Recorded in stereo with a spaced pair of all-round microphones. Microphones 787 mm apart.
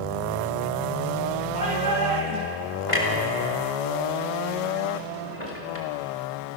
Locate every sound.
1.5 s a shout: 75° right (ahead or behind), 9.5 m; by 2.6 s 80° right, 8.5 m
2.9 s a clunk: 40° left (ahead or behind), 4.5 m